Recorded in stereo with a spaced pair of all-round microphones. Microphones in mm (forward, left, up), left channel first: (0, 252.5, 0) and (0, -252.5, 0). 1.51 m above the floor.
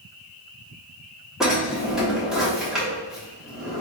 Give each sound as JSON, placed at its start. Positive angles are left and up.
{"t": 1.4, "sound": "a drawer", "side_deg": 0, "distance_m": 1.1}